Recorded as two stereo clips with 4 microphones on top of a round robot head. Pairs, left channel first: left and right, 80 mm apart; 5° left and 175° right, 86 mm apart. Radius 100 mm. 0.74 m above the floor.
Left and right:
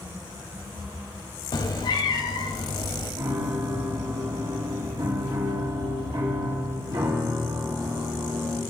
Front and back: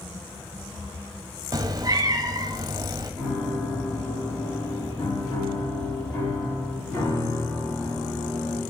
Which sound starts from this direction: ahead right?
A piano, at 3.2 s.